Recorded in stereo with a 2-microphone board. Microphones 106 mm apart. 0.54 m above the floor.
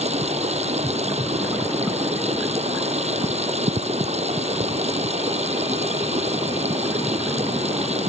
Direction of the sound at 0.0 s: 75° right (ahead or behind).